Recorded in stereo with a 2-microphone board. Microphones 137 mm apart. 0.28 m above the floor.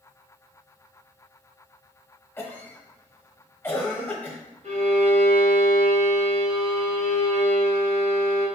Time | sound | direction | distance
2.4 | a cough | 15° left (ahead or behind) | 1.2 m
4.6 | a violin | 60° right (ahead or behind) | 2 m